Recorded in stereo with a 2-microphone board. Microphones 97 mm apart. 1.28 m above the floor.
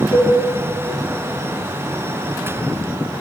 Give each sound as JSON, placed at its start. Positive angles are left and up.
{"t": 0.1, "sound": "a cowbell", "side_deg": 25, "distance_m": 2.5}